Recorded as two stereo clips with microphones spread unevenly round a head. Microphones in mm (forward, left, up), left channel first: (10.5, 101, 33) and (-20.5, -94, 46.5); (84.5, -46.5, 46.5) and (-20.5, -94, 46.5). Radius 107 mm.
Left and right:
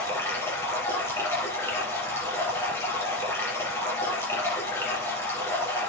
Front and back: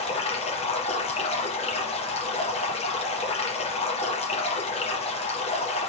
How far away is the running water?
About 5.5 m.